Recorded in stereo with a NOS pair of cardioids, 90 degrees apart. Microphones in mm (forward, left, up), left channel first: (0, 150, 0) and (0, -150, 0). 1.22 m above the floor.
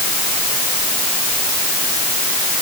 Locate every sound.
Only background noise.